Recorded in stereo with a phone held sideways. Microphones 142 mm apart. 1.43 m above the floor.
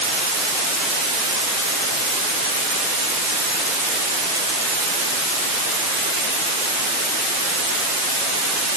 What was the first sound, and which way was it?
Only background noise.